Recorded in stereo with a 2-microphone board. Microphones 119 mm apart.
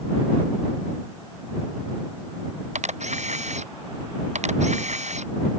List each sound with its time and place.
2.8 s a camera shutter: 80° right